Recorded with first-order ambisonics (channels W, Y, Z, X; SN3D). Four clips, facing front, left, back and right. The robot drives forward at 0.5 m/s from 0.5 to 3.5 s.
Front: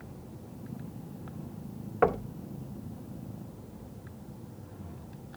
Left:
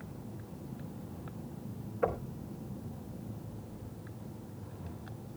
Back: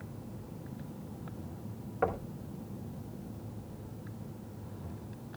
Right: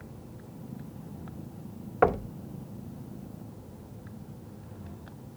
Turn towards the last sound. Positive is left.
turn(degrees=-115)